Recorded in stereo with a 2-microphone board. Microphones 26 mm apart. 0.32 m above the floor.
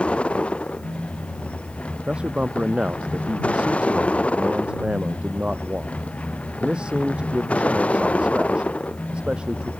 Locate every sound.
0.0 s a vehicle: 60° left (ahead or behind); by 9.8 s 90° left
2.1 s a man speaking: 50° right (ahead or behind)